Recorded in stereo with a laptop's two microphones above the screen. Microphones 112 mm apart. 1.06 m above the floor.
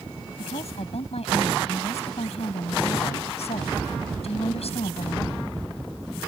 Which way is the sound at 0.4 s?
80° left.